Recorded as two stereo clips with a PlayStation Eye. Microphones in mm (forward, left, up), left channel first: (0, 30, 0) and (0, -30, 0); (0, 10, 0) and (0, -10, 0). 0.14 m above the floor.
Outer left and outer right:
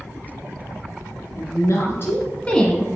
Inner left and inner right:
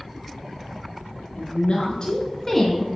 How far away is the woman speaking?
About 2 m.